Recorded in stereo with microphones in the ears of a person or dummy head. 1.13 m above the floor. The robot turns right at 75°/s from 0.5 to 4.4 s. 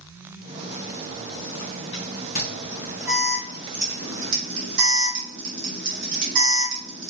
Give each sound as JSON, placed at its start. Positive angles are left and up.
{"t": 2.4, "sound": "an alarm", "side_deg": 50, "distance_m": 2.0}